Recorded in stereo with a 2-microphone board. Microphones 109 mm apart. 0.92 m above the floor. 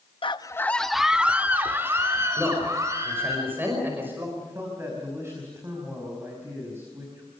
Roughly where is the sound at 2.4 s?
Centre.